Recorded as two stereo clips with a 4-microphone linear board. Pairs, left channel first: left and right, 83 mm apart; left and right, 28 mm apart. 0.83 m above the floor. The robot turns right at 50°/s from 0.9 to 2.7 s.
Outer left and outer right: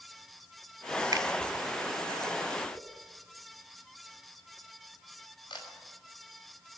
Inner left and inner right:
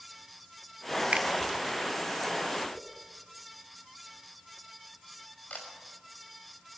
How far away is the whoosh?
About 4.5 m.